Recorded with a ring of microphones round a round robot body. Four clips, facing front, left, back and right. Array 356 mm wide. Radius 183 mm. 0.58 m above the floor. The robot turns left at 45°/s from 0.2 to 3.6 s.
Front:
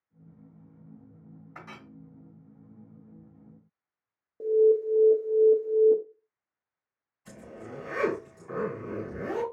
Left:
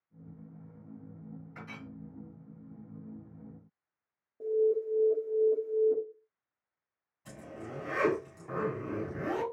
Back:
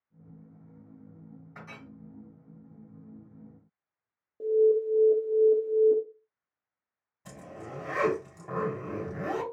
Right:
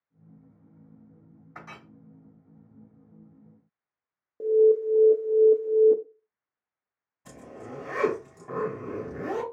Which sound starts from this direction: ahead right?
A clink, at 1.6 s.